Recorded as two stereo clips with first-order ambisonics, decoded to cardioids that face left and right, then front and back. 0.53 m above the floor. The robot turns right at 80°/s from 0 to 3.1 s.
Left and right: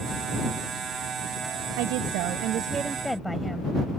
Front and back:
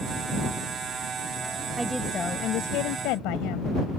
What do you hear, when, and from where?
1.8 s a woman speaking: 105° right; by 4.0 s straight ahead